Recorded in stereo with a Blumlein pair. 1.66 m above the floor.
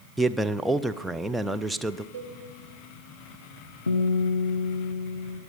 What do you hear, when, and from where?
0.2 s a man speaking: 5° right, 0.6 m
2.1 s a cowbell: 55° right, 1.4 m
3.9 s a guitar: 70° left, 1.2 m